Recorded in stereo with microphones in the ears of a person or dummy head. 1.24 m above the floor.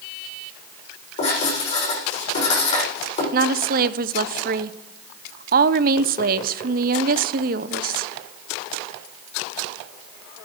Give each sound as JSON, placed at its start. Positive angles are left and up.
{"t": 1.2, "sound": "writing", "side_deg": 35, "distance_m": 8.0}
{"t": 3.3, "sound": "a woman speaking", "side_deg": -45, "distance_m": 0.5}